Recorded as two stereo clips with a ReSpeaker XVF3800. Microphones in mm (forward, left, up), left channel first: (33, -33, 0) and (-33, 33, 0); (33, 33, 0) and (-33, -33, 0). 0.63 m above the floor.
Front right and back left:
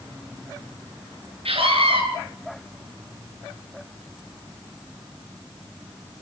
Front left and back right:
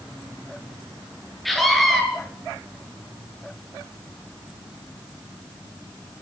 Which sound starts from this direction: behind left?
A scream, at 1.4 s.